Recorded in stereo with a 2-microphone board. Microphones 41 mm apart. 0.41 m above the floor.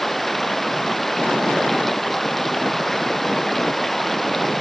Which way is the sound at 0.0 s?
5° left (ahead or behind).